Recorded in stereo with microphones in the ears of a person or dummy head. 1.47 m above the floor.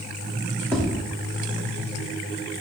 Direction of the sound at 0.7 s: 10° left (ahead or behind).